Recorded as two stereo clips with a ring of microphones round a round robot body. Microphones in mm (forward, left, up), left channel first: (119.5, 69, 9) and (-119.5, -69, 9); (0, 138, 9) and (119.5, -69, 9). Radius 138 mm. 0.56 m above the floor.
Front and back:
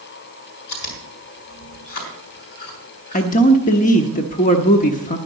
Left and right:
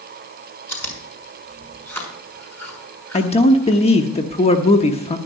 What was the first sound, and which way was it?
Chewing, 40° left.